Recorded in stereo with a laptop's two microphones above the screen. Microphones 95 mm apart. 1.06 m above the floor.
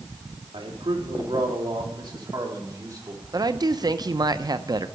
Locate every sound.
0.5 s a man speaking: 75° right (ahead or behind), 2.5 m; by 3.2 s 35° right (ahead or behind), 3.5 m
3.3 s a woman speaking: 45° right (ahead or behind), 0.5 m